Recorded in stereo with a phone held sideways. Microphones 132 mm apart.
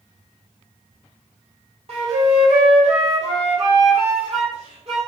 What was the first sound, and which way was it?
A flute, 50° right (ahead or behind).